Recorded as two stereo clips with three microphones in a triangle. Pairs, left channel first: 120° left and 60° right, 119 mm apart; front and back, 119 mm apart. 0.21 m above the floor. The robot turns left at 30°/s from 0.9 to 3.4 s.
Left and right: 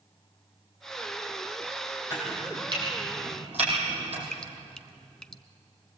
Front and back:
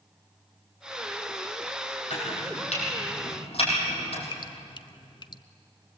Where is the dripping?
40° left, 0.7 m.